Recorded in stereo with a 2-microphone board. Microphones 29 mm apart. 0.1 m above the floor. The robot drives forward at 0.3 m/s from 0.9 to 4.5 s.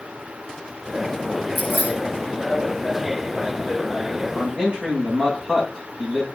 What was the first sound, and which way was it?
Keys jangling, 65° right (ahead or behind).